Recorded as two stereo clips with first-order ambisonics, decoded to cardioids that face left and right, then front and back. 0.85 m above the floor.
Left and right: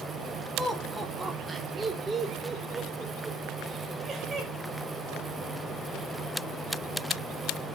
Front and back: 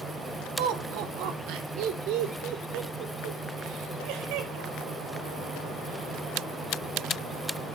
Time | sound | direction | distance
0.6 | laughter | straight behind | 1.7 m